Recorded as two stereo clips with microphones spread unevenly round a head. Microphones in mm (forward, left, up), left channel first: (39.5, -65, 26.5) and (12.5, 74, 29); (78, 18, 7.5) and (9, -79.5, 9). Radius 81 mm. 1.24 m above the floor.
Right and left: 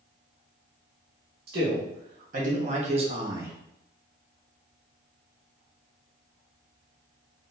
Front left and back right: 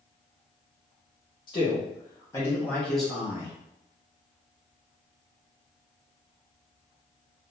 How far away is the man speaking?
About 2 m.